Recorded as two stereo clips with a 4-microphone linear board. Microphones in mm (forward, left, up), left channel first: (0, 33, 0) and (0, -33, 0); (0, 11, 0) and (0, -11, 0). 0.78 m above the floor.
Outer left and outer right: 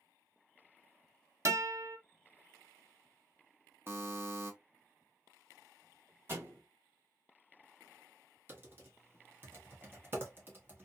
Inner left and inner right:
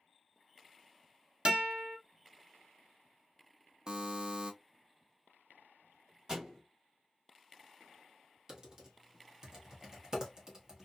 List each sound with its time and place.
1.4 s a guitar: 45° right (ahead or behind), 0.8 m
3.9 s a buzzer: 40° right (ahead or behind), 0.5 m
6.3 s a thud: 40° right (ahead or behind), 1.7 m
8.5 s typing on a keyboard: 35° right (ahead or behind), 1.1 m